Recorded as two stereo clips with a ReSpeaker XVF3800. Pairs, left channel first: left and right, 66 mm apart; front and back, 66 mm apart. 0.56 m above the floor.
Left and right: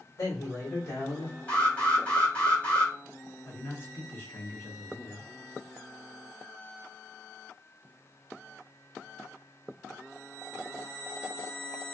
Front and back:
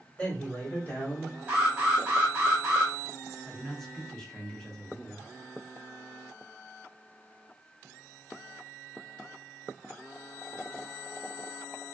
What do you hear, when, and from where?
0.2 s a man speaking: 65° left, 1.7 m; by 1.4 s 35° left, 1.0 m
1.5 s an alarm: 130° left, 1.5 m
3.5 s a man speaking: 75° left, 0.9 m